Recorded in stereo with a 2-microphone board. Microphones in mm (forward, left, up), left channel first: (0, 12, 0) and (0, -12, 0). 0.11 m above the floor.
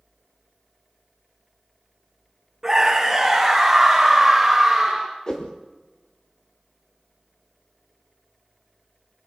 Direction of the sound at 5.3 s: 35° left (ahead or behind).